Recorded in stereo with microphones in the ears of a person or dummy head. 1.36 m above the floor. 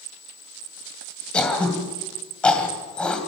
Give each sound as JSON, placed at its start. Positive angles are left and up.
{"t": 1.3, "sound": "throat clearing", "side_deg": 10, "distance_m": 2.0}